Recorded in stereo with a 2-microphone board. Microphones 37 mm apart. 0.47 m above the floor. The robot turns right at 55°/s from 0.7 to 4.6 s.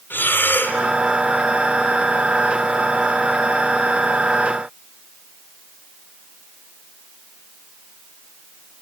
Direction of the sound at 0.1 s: 75° left (ahead or behind).